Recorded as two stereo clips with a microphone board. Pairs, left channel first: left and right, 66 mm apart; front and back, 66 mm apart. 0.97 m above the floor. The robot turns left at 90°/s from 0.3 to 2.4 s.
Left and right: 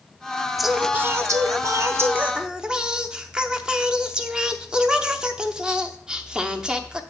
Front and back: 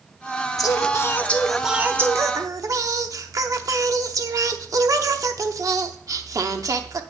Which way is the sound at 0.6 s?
Straight ahead.